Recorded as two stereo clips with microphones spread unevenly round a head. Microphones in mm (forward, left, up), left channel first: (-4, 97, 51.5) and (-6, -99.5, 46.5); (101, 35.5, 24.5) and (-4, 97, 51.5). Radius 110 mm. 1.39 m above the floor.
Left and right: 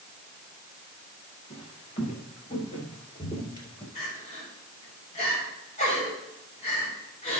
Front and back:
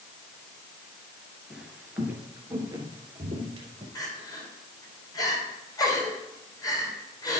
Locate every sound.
1.5 s footsteps: 85° left, 1.5 m; by 3.9 s 155° left, 1.9 m
4.0 s crying: 30° left, 3.5 m